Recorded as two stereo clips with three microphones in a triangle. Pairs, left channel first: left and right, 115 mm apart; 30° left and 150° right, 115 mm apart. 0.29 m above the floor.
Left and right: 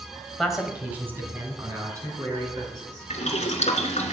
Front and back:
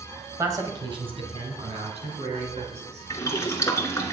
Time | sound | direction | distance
0.4 | a man speaking | 175° left | 1.6 m
3.1 | boiling | 90° left | 1.5 m